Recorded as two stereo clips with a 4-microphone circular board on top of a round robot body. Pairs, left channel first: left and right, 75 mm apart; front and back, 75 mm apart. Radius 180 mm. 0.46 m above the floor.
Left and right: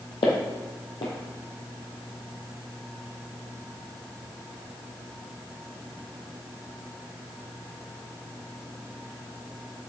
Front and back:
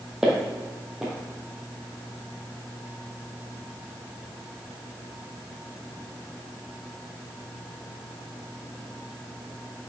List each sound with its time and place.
0.2 s footsteps: 100° left, 1.0 m